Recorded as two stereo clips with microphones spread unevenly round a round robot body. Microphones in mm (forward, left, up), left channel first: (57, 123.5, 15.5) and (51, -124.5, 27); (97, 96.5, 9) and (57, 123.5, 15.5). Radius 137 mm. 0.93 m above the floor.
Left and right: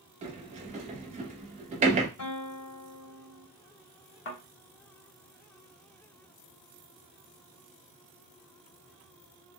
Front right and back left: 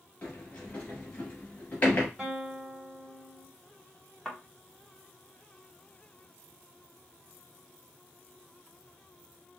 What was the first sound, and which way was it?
A sliding door, 75° right.